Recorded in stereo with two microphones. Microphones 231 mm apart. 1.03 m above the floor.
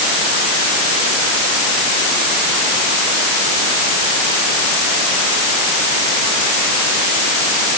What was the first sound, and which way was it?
Only background noise.